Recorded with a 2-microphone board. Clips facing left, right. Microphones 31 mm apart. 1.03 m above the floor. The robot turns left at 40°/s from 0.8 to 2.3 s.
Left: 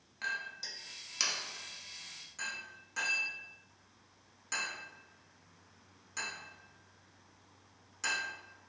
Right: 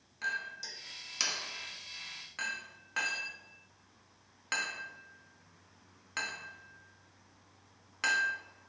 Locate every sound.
0.2 s a clink: 15° left (ahead or behind), 1.0 m; by 8.4 s 45° right (ahead or behind), 1.0 m